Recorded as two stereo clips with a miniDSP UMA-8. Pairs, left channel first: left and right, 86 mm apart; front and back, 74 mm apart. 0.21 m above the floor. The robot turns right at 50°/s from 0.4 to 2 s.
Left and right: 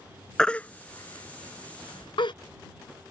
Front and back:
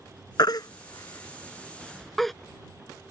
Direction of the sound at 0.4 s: 5° left.